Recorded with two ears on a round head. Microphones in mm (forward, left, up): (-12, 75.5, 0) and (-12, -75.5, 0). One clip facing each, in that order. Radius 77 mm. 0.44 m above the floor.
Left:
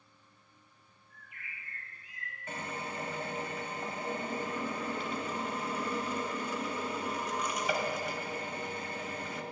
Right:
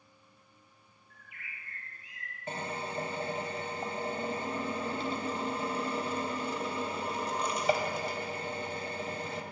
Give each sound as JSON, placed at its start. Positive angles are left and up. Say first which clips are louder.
{"t": 1.1, "sound": "a bird", "louder": "even", "side_deg": -55, "distance_m": 4.5}
{"t": 2.5, "sound": "a drill", "louder": "right 3 dB", "side_deg": -30, "distance_m": 2.0}